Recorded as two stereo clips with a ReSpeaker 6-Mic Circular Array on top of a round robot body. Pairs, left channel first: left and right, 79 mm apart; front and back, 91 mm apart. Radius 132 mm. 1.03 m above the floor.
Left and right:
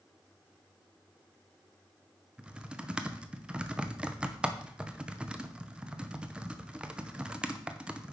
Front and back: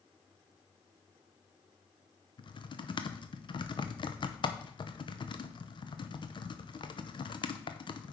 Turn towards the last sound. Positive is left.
turn(degrees=-15)